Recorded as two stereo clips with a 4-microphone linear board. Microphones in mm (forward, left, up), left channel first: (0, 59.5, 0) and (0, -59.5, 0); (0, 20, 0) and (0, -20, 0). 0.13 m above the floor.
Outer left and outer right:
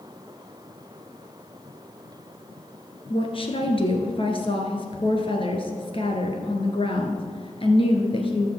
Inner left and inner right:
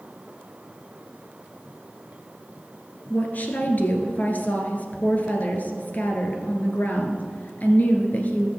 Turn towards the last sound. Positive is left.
turn(degrees=45)  # may be behind; listen again after turning